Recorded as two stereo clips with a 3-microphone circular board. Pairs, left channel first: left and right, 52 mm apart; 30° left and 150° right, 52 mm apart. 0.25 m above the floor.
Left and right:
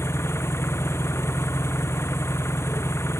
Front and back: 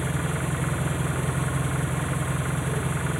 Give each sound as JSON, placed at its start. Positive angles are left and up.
{"t": 0.0, "sound": "an engine running", "azimuth_deg": 125}